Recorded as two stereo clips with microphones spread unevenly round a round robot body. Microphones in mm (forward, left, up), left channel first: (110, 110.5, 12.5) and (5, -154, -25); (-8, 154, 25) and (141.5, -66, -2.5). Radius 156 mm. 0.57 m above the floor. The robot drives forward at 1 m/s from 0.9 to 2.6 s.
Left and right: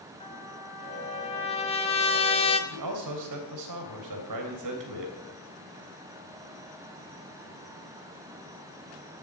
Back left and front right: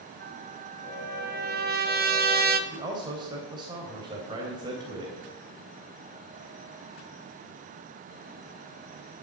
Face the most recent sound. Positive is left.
turn(degrees=-130)